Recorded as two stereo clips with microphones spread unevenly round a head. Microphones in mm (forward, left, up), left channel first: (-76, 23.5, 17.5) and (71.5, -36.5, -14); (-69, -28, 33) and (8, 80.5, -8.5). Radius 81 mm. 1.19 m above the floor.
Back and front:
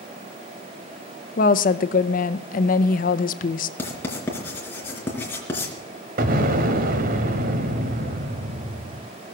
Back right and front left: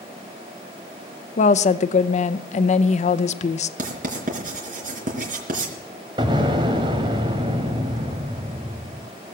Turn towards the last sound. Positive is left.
turn(degrees=-15)